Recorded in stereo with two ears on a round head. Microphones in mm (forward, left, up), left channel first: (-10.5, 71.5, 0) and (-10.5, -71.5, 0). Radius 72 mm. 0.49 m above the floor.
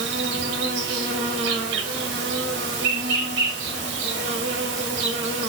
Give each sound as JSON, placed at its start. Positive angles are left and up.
{"t": 0.0, "sound": "an insect", "side_deg": -80, "distance_m": 0.9}